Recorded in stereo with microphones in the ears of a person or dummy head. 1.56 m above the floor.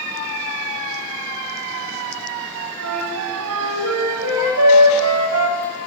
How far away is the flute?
About 0.6 m.